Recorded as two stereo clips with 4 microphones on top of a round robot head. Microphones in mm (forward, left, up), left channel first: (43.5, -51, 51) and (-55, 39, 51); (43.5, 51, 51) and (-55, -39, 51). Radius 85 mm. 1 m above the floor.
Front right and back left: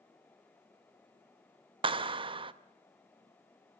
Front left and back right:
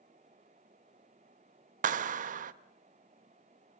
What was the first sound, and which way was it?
A clap, 170° right.